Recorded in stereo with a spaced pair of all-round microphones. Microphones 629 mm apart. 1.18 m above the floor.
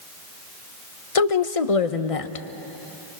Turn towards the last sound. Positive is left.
turn(degrees=60)  # may be behind; listen again after turning